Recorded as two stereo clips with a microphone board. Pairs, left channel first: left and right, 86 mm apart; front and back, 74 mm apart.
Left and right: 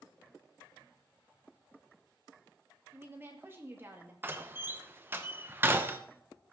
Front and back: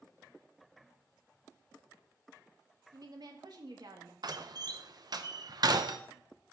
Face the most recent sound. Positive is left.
turn(degrees=-155)